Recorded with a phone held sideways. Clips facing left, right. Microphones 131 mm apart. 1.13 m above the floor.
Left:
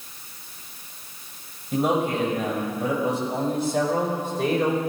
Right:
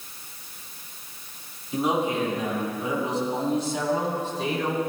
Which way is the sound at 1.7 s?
55° left (ahead or behind).